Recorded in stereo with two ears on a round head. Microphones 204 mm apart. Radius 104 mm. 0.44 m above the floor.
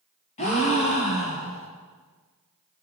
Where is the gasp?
30° left (ahead or behind), 2.5 m.